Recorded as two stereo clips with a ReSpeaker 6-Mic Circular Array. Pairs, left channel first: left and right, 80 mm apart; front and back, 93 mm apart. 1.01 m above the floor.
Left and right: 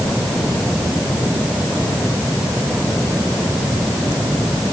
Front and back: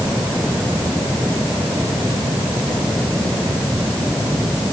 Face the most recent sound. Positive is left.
No sound to turn to.